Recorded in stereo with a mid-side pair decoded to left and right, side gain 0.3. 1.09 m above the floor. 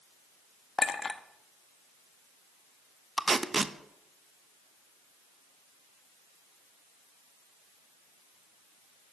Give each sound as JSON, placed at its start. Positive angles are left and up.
{"t": 0.8, "sound": "a clink", "azimuth_deg": 50, "distance_m": 1.0}
{"t": 3.2, "sound": "tape being pulled", "azimuth_deg": -40, "distance_m": 0.9}